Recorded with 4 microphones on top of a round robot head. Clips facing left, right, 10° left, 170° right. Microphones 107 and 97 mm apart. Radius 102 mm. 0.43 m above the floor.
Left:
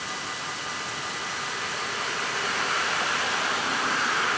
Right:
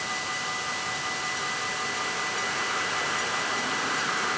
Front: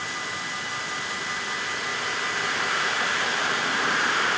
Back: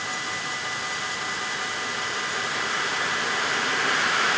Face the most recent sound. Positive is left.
No sound to turn to.